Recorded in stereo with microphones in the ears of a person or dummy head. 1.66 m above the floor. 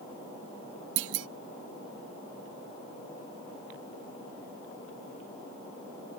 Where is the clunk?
80° right.